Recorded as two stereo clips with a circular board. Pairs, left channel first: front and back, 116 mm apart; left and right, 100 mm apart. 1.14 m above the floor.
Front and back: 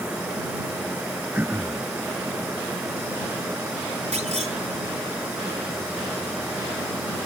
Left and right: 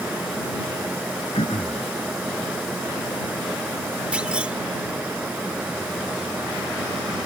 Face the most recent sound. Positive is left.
turn(degrees=-170)